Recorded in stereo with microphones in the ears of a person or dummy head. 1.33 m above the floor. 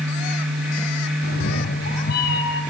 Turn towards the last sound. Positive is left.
turn(degrees=55)  # may be behind; listen again after turning